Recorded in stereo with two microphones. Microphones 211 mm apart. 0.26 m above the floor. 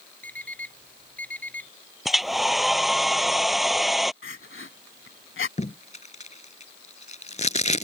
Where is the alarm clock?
5° left (ahead or behind).